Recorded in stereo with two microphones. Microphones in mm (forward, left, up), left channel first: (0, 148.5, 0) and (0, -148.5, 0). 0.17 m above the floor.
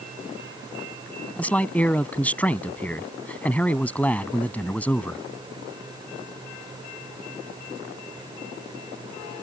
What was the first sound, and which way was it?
A man speaking, 5° left (ahead or behind).